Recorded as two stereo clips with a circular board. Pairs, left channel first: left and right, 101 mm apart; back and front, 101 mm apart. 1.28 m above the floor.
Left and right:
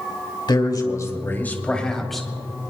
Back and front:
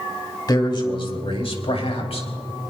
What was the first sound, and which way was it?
A man speaking, 135° left.